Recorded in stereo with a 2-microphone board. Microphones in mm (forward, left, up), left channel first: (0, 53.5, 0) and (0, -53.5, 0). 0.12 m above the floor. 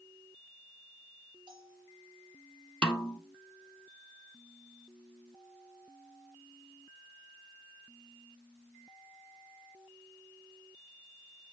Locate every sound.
1.5 s a bell: 45° right (ahead or behind), 3 m
2.8 s a snare drum: 10° left (ahead or behind), 1.4 m